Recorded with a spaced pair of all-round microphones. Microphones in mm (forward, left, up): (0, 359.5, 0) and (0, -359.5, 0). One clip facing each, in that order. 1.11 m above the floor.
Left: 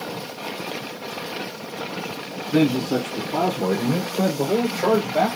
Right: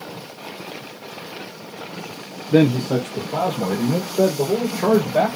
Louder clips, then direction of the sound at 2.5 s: Right 3 dB; 75° right (ahead or behind).